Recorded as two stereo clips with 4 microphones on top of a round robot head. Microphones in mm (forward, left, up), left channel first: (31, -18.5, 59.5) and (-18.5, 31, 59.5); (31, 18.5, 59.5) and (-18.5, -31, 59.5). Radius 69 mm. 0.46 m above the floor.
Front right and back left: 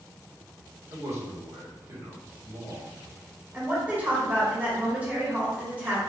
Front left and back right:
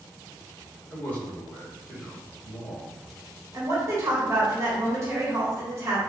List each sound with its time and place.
0.9 s a man speaking: 105° left, 2 m
3.5 s a woman speaking: 165° right, 1.7 m